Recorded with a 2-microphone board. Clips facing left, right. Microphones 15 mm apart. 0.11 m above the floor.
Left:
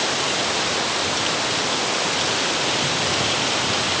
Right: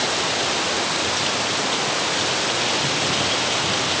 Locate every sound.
Only background noise.